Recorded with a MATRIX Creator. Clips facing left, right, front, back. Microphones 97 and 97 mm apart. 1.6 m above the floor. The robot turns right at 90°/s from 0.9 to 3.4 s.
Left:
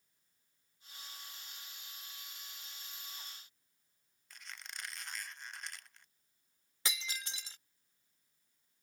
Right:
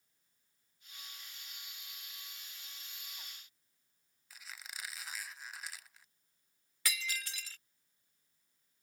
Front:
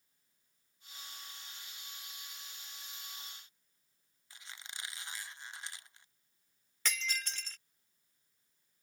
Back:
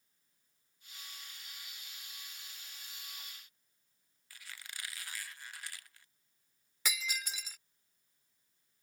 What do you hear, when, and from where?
4.3 s a squeak: 15° right
6.8 s breaking glass: 110° left